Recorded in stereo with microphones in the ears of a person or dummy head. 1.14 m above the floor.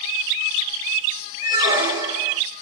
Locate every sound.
1.4 s a squeak: 20° right (ahead or behind), 0.9 m